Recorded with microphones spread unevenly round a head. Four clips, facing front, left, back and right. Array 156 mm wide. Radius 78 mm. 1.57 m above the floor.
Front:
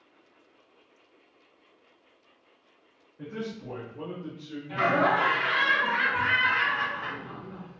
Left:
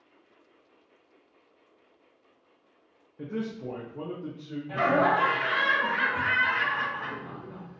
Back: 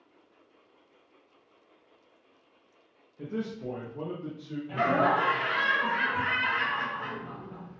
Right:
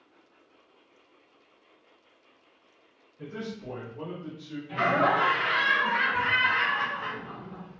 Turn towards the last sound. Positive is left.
turn(degrees=120)